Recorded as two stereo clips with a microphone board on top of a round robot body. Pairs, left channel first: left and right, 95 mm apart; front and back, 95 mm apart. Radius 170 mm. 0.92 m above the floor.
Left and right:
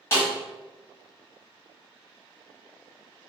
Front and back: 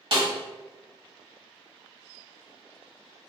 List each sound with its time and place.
0.1 s a snare drum: 150° left, 1.6 m